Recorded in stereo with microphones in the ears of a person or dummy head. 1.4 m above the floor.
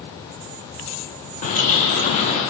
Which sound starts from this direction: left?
A bird, at 1.4 s.